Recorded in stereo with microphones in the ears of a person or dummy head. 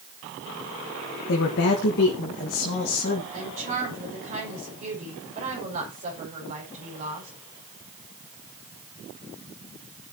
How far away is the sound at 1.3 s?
About 1.6 m.